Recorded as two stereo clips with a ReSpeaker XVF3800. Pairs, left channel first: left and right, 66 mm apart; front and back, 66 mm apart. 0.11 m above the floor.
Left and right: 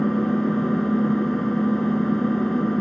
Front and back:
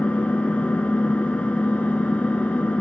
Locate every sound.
0.0 s an engine running: 15° left, 1.3 m